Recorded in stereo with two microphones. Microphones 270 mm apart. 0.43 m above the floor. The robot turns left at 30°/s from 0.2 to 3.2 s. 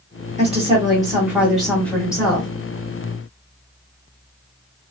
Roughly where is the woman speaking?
Behind right.